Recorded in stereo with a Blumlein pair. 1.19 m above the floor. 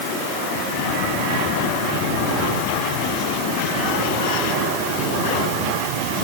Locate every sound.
Only background noise.